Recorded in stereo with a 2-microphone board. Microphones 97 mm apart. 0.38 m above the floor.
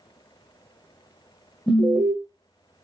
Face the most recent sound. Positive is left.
turn(degrees=0)  # may be behind; listen again after turning